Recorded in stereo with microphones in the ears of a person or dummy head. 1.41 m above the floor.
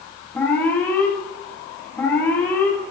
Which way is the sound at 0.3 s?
10° left (ahead or behind).